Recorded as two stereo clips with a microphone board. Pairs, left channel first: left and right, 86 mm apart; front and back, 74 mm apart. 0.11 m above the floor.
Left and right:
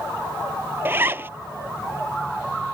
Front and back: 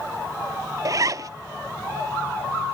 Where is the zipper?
150° right.